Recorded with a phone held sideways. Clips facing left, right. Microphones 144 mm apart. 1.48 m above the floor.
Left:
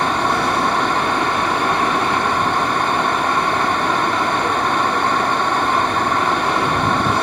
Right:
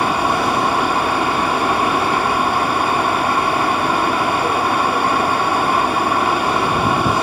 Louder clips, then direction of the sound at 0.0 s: Right 1 dB; 10° right (ahead or behind).